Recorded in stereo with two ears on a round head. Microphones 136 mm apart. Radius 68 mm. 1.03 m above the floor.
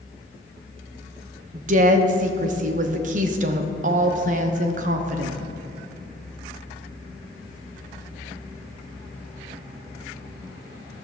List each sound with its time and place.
1.5 s a woman speaking: 50° right (ahead or behind), 0.8 m